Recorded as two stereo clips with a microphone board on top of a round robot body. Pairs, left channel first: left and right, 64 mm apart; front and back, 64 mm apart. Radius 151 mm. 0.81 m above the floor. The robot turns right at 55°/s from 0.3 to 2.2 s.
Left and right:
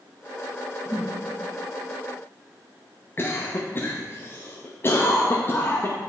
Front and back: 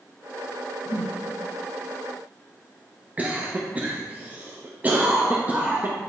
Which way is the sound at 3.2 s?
125° left.